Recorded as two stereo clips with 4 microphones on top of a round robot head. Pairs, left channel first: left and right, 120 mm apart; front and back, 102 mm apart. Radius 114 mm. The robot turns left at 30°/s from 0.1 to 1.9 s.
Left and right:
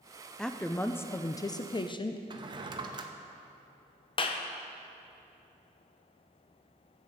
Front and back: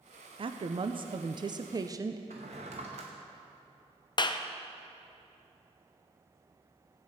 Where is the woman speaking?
175° left, 0.6 m; by 2.2 s 130° left, 0.6 m.